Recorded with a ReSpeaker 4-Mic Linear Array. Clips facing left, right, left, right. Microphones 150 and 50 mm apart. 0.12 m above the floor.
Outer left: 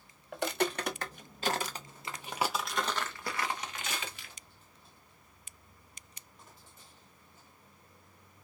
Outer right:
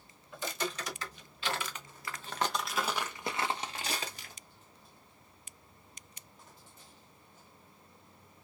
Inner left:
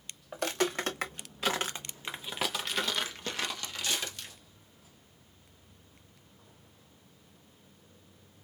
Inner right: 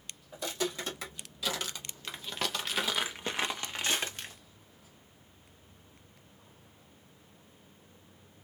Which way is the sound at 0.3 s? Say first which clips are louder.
Outer left 6 dB, inner left 4 dB; 65° left (ahead or behind).